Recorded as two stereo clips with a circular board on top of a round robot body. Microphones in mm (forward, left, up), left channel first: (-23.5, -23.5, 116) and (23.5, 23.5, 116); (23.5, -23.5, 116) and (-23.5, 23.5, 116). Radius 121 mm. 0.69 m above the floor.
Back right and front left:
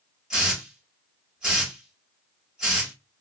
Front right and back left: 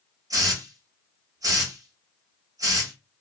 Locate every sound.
0.3 s a hiss: 125° left, 1.6 m